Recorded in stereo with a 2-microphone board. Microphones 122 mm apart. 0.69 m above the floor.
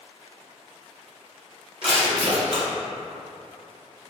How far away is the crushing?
About 1.7 m.